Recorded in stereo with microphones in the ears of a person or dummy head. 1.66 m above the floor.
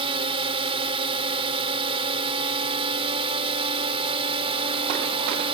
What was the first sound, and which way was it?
A drone, 30° right (ahead or behind).